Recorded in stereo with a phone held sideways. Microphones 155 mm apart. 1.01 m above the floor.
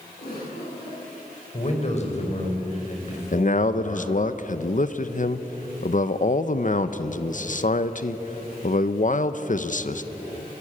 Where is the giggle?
80° left, 10 m.